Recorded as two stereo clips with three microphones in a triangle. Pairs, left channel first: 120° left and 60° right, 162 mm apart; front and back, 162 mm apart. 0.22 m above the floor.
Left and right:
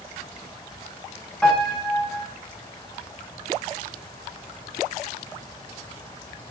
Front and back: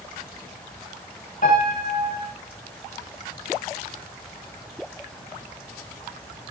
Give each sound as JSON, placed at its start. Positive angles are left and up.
{"t": 1.4, "sound": "a piano", "azimuth_deg": 35, "distance_m": 7.5}